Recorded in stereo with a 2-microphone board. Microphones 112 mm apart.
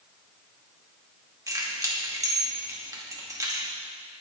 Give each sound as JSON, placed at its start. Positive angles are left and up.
{"t": 1.5, "sound": "keys jangling", "side_deg": -30, "distance_m": 2.0}